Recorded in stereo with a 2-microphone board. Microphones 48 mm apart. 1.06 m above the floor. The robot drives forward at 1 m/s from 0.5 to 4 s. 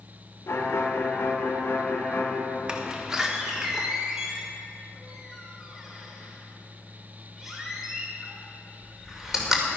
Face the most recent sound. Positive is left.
turn(degrees=-10)  # may be behind; listen again after turning